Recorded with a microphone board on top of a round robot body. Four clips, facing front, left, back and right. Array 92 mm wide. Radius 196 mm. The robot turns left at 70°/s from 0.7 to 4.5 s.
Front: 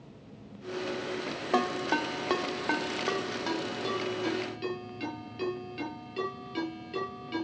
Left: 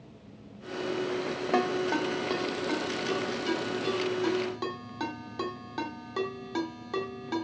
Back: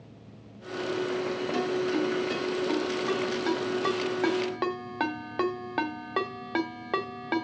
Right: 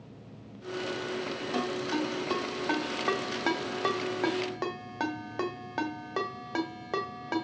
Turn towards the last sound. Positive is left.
turn(degrees=-155)